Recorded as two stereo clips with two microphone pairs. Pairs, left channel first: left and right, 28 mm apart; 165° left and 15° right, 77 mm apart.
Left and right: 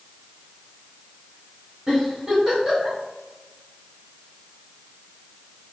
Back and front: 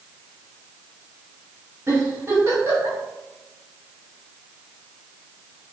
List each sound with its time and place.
1.9 s a giggle: 50° right, 1.5 m